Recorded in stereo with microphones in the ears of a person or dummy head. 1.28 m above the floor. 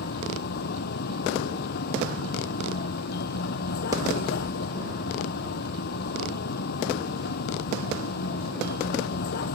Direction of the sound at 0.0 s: 50° left (ahead or behind).